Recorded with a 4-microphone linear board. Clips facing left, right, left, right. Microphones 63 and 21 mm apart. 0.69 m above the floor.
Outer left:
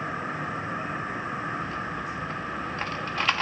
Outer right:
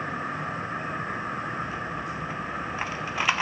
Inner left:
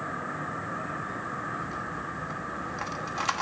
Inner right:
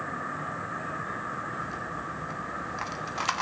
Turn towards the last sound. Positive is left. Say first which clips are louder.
# even, even
turn(degrees=-10)  # may be behind; listen again after turning